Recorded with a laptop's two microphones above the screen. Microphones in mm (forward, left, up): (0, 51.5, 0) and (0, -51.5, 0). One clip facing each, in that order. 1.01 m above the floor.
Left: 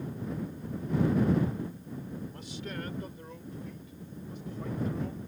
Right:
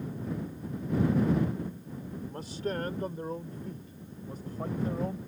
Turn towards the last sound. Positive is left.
turn(degrees=-40)  # may be behind; listen again after turning